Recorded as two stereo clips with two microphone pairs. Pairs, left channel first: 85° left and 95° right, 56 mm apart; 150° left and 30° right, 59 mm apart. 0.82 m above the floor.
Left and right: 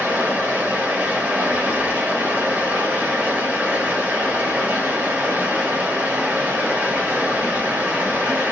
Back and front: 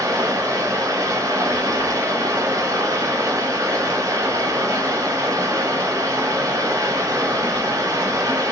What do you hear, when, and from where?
0.0 s running water: 30° right, 1.6 m